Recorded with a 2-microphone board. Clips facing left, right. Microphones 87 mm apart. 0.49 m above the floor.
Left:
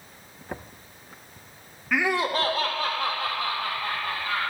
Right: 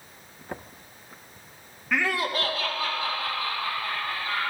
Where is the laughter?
5° left (ahead or behind), 0.8 m; by 4.4 s 70° left (ahead or behind), 3.5 m.